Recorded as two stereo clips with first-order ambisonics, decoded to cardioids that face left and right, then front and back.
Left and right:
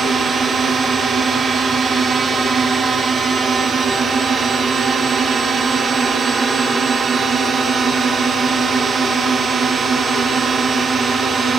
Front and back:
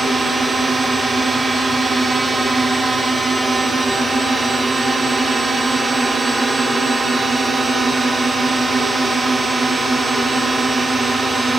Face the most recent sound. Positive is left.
turn(degrees=-115)